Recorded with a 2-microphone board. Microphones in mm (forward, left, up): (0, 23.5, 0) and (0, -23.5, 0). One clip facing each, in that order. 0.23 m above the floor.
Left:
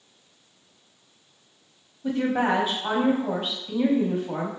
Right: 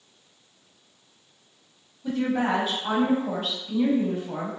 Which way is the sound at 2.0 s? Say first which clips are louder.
Left 2 dB; 20° left (ahead or behind).